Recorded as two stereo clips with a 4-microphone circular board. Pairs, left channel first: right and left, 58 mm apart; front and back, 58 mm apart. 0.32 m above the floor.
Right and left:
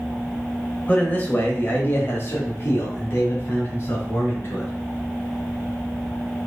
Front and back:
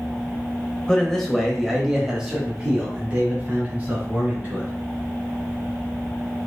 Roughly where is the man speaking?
Ahead right.